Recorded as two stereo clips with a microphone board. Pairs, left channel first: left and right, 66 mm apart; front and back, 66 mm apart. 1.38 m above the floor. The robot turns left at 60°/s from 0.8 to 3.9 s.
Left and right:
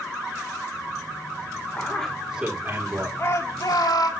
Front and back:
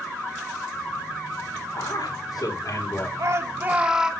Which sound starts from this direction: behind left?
A shout, at 3.2 s.